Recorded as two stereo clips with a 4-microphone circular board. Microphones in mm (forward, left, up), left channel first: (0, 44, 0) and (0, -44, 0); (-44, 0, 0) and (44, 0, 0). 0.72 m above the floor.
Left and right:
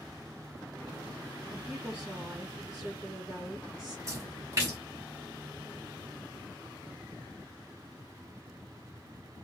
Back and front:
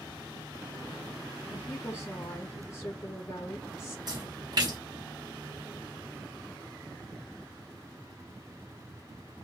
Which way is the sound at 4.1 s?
35° right.